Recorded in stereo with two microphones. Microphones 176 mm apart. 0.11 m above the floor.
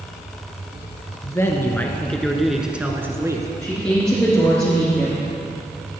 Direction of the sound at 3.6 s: 5° left (ahead or behind).